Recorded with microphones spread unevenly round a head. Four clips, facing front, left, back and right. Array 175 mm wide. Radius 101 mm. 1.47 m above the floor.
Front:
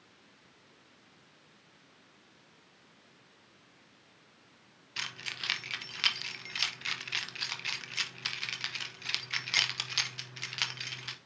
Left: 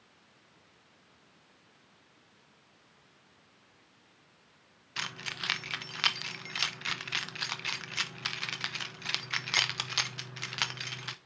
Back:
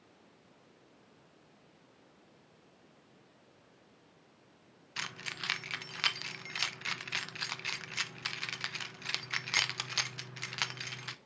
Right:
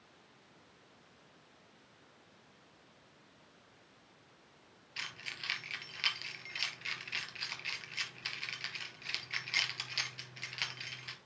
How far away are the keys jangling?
About 0.7 m.